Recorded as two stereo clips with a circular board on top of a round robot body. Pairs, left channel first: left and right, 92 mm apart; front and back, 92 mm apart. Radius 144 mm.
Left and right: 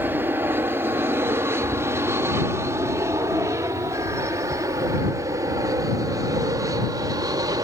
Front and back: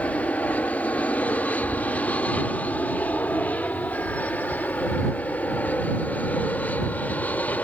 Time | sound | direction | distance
0.0 | an aircraft | 55° right | ?